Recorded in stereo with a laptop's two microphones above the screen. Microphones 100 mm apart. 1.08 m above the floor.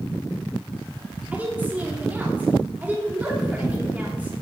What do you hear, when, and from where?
1.3 s a woman speaking: 20° right (ahead or behind), 2.5 m